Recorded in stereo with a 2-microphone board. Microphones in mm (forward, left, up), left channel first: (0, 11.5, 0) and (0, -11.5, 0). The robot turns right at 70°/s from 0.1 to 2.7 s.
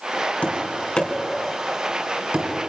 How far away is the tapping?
About 4 m.